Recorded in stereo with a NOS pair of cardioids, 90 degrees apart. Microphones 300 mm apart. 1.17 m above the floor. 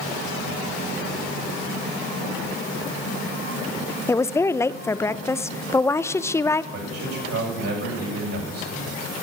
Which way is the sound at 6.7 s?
55° right.